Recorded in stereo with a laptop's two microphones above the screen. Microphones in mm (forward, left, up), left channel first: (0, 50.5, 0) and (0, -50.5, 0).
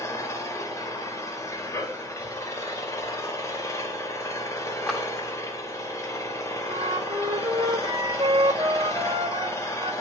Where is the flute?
45° right (ahead or behind), 1.2 m.